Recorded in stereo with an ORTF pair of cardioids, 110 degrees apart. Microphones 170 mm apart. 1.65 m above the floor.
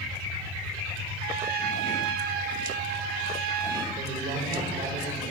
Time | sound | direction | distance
1.2 | a trumpet | 65° right | 0.8 m
4.0 | a man speaking | 45° right | 3 m